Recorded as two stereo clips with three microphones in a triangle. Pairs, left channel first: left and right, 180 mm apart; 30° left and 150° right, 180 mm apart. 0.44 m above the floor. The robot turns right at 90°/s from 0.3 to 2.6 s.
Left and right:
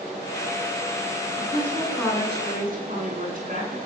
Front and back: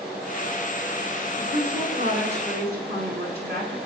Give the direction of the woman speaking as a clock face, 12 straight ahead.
8 o'clock.